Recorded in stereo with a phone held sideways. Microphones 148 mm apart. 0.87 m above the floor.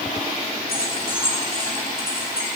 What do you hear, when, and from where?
0.7 s keys jangling: 85° left, 7 m